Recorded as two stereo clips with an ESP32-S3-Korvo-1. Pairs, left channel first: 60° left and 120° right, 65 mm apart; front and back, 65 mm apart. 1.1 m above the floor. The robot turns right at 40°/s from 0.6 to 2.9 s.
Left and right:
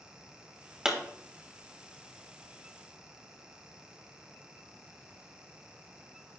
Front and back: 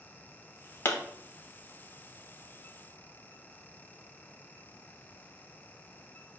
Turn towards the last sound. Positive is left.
turn(degrees=40)